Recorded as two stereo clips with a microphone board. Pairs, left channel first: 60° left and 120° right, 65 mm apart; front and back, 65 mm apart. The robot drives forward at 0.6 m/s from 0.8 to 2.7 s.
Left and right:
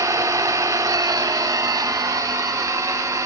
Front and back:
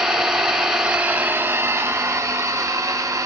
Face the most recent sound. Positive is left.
turn(degrees=-145)